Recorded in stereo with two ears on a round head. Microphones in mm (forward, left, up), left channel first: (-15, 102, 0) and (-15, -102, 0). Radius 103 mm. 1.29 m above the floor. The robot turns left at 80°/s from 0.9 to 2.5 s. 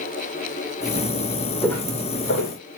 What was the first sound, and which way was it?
Footsteps, centre (ahead or behind).